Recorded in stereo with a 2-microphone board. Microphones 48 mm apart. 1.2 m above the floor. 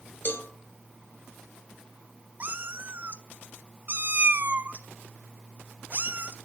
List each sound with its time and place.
0.2 s a cowbell: 50° left (ahead or behind), 2.5 m
2.4 s a cat meowing: 35° right (ahead or behind), 1.0 m